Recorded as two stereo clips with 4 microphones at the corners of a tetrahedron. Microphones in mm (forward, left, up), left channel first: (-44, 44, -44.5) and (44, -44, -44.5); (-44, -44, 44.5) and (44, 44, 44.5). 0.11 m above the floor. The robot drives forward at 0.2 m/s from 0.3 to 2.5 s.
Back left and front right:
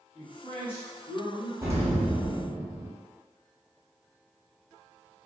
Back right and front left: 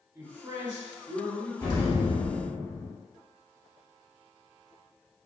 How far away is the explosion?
About 1.1 m.